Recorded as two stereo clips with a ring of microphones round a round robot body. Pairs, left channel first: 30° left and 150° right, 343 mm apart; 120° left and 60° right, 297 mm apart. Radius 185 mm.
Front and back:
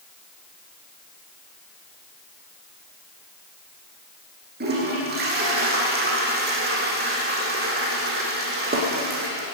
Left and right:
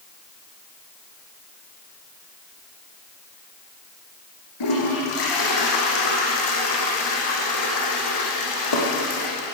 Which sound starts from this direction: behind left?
A toilet flushing, at 4.6 s.